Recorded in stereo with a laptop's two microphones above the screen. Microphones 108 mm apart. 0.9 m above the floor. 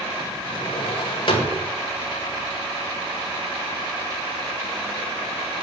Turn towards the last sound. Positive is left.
turn(degrees=50)  # may be behind; listen again after turning